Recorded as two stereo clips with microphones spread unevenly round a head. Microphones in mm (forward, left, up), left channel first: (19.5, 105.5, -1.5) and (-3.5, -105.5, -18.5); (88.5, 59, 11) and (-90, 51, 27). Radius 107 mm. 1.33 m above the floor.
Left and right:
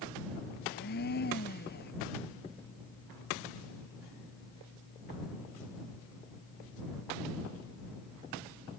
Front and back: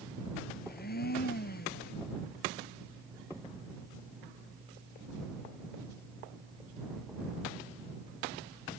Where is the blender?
40° left.